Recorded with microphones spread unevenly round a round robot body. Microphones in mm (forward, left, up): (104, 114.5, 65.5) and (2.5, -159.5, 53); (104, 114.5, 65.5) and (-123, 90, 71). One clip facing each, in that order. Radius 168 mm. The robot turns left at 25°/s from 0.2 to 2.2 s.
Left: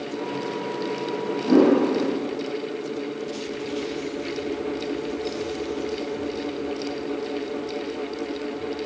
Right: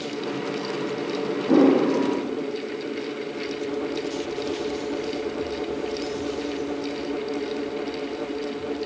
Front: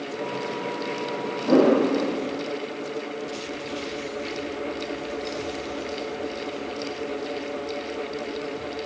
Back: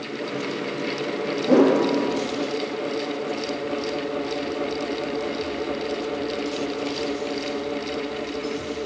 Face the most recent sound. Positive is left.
turn(degrees=105)